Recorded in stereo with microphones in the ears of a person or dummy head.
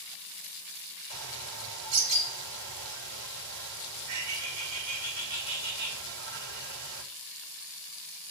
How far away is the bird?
About 2.5 m.